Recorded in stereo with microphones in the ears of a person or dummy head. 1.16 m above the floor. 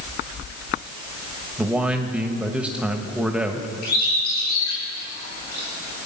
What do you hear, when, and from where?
1.6 s a man speaking: 5° right (ahead or behind), 1.2 m
3.8 s a bird: 55° left (ahead or behind), 5 m